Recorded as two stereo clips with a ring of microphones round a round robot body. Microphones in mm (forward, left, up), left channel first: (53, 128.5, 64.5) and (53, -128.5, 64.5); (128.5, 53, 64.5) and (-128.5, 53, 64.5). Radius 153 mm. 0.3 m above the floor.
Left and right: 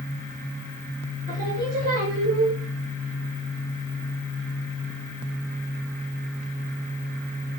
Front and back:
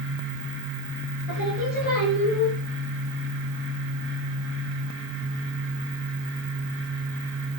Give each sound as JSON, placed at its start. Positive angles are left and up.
{"t": 1.3, "sound": "singing", "azimuth_deg": -35, "distance_m": 7.0}